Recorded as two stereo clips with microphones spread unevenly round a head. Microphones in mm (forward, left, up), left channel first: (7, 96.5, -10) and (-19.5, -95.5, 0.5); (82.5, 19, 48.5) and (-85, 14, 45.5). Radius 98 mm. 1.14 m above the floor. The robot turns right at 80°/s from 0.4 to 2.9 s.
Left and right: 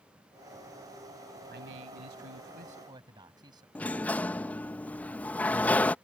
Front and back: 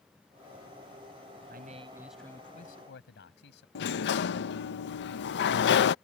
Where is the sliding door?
Straight ahead.